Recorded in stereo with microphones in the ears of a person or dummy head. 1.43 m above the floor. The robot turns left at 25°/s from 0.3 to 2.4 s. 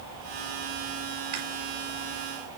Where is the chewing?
35° right (ahead or behind), 3 m; by 1.4 s 40° right (ahead or behind), 3 m.